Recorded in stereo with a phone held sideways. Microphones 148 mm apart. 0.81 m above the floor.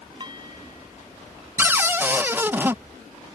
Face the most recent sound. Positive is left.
turn(degrees=-15)  # may be behind; listen again after turning